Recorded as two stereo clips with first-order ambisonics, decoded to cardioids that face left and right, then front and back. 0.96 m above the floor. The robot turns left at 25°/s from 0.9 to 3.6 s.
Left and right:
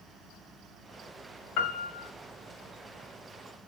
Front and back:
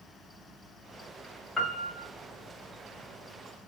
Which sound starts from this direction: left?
A piano, at 1.6 s.